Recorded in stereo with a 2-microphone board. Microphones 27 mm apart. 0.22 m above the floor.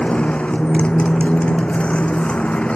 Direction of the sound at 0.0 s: 50° left (ahead or behind).